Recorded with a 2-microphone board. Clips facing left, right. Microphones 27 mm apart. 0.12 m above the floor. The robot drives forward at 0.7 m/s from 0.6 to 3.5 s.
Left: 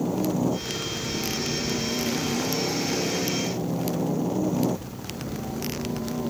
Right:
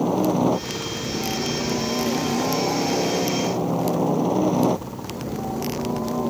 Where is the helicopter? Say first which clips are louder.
Right 5 dB; 45° right (ahead or behind); by 6.3 s 50° right (ahead or behind).